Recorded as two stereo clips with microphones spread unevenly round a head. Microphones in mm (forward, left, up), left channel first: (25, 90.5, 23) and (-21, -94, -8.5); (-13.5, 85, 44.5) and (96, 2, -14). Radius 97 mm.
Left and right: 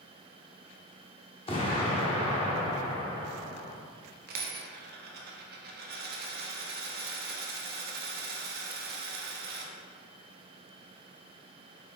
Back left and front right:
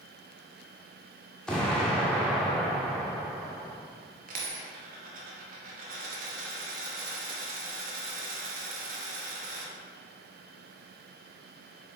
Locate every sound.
1.5 s an explosion: 95° left, 1.3 m
4.3 s a dropped coin: 85° right, 1.0 m